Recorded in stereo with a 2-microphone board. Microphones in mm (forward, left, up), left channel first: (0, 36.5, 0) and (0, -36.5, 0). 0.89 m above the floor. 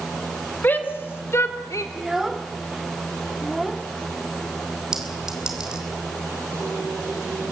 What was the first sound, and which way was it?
A shout, 25° left (ahead or behind).